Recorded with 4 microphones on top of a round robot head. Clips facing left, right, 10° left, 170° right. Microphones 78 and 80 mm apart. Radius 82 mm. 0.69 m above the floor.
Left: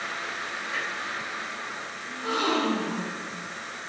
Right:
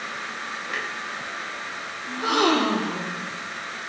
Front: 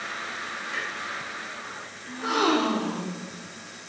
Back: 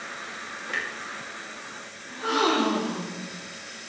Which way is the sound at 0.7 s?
130° right.